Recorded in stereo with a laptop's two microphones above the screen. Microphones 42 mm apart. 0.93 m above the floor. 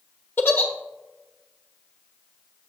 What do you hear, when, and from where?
0.4 s a giggle: 65° left (ahead or behind), 1.0 m